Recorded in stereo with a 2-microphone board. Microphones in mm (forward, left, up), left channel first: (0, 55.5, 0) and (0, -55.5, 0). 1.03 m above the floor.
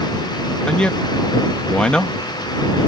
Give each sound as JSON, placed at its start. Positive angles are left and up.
{"t": 0.7, "sound": "a man speaking", "side_deg": 10}